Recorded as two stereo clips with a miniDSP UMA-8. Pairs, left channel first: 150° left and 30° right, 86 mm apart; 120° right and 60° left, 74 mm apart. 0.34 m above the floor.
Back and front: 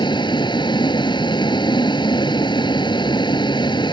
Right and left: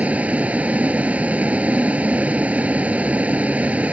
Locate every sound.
0.0 s a vehicle: 130° left